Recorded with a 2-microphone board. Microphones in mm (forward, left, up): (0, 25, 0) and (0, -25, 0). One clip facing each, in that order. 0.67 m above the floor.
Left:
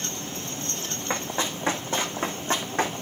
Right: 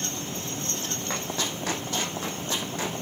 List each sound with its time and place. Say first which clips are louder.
1.1 s running footsteps: left 4 dB; 25° left (ahead or behind), 2 m; by 2.9 s 45° left (ahead or behind), 2.5 m